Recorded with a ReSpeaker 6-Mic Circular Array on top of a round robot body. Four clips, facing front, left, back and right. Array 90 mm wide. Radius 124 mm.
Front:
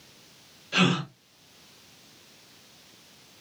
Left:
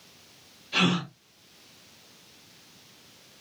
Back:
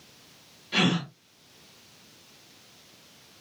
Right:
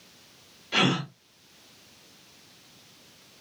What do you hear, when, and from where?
0.7 s a gasp: 110° right, 1.3 m